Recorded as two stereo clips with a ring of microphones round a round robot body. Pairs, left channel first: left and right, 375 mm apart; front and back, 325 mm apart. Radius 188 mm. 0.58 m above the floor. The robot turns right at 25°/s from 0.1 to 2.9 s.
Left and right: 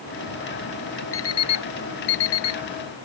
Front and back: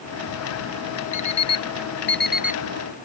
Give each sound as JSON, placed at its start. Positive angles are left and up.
{"t": 1.1, "sound": "an alarm clock", "azimuth_deg": 30}